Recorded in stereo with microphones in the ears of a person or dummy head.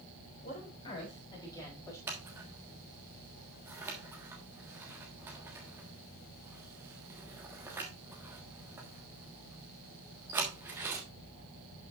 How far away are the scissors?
About 1.5 m.